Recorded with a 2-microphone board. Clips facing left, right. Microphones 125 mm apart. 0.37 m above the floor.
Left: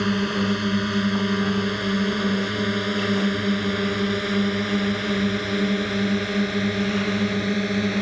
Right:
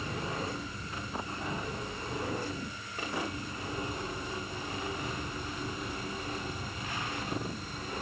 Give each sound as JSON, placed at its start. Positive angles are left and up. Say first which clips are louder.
{"t": 0.0, "sound": "a drone", "louder": "left 13 dB", "side_deg": 75}